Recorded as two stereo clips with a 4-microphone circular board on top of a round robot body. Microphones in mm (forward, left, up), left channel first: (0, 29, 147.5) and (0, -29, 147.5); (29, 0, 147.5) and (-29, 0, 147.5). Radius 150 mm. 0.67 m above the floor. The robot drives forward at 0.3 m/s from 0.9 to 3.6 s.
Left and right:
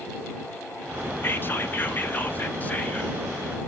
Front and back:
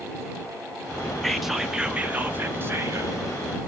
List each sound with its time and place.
1.2 s whispering: 80° left, 0.6 m; by 3.2 s 150° left, 0.8 m